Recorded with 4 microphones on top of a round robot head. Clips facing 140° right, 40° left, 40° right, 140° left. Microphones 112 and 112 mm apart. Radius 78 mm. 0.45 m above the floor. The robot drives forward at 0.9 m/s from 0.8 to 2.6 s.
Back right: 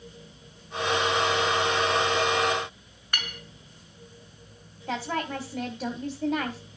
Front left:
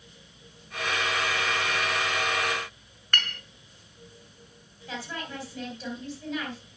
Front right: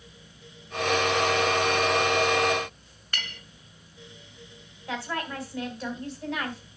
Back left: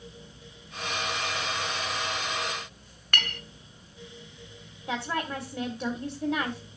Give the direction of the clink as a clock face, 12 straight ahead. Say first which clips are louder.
Front left 2 dB, back left 5 dB; 7 o'clock.